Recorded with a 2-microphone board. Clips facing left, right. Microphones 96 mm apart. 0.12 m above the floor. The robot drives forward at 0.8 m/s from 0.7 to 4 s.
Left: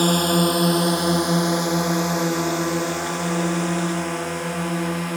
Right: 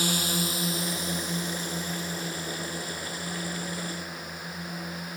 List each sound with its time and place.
0.0 s a drone: 50° left (ahead or behind); by 5.2 s 80° left